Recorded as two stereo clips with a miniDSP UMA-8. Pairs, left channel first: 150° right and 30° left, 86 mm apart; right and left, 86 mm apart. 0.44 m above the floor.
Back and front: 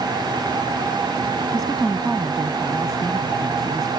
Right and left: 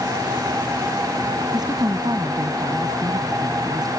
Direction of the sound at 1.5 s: 125° left.